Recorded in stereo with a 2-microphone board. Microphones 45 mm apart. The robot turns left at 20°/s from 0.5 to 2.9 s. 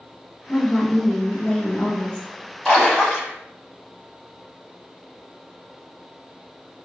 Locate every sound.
0.5 s a woman speaking: 110° left, 1.3 m; by 2.3 s 75° left, 1.3 m
2.6 s a splash: 15° left (ahead or behind), 1.1 m; by 3.3 s 20° left (ahead or behind), 1.1 m